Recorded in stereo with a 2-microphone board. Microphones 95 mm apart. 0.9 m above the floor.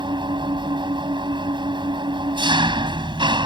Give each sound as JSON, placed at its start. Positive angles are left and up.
{"t": 0.0, "sound": "an engine running", "side_deg": -55}